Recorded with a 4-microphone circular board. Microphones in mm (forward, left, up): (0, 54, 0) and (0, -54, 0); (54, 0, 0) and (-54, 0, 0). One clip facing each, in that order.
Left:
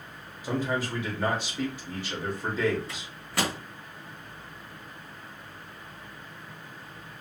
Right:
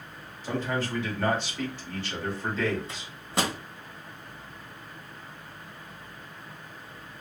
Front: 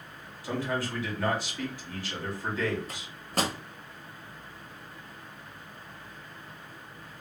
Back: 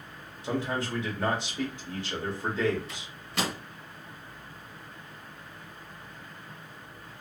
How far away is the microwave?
About 0.7 m.